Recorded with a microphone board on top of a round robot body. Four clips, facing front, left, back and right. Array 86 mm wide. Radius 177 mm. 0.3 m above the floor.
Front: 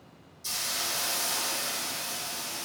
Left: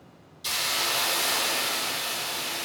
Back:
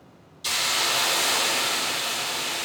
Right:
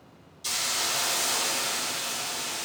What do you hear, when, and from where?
0.4 s a hiss: 165° left, 0.7 m